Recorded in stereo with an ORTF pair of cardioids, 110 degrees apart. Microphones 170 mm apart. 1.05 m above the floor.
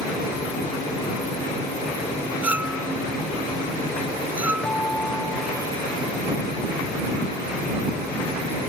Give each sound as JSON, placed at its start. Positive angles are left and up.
{"t": 2.4, "sound": "a clink", "azimuth_deg": -10}
{"t": 4.6, "sound": "a guitar", "azimuth_deg": 10}